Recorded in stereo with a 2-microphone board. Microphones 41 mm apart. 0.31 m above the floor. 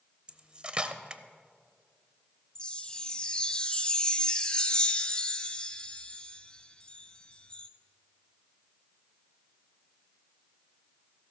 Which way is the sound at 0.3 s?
25° right (ahead or behind).